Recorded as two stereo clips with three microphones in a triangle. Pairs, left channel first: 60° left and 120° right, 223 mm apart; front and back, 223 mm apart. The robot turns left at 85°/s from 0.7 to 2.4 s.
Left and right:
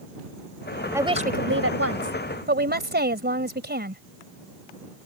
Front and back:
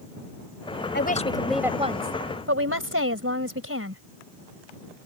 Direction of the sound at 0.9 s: 40° right.